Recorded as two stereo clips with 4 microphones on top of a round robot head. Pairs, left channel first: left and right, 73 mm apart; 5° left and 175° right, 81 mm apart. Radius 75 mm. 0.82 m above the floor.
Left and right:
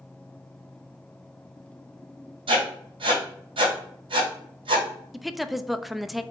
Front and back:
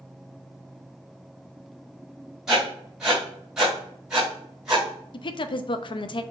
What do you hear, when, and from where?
2.5 s writing: 95° right, 2 m
5.1 s a woman speaking: straight ahead, 0.5 m